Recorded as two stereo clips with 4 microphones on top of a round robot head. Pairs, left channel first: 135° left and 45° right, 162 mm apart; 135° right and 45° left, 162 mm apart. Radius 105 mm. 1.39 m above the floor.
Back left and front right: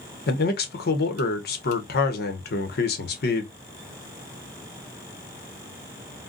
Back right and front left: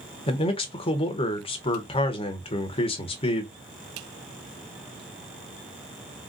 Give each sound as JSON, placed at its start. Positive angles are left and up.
{"t": 0.3, "sound": "a man speaking", "azimuth_deg": 165, "distance_m": 0.9}